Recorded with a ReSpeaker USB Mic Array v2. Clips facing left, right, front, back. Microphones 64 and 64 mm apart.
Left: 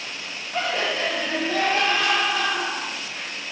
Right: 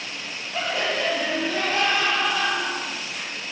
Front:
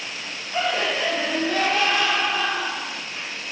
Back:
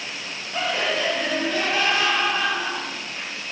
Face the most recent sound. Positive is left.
turn(degrees=25)